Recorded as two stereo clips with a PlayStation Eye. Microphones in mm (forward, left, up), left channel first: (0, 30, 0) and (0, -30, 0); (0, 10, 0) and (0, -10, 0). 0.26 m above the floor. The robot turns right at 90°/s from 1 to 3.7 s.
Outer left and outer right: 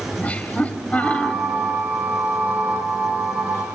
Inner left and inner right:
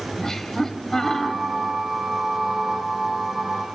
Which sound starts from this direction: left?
Laughter, at 0.2 s.